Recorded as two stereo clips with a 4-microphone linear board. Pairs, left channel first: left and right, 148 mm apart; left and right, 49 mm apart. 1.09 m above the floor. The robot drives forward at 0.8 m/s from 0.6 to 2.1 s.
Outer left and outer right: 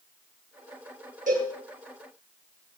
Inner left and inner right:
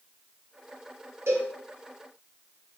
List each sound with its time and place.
1.3 s a cowbell: 60° right (ahead or behind), 6 m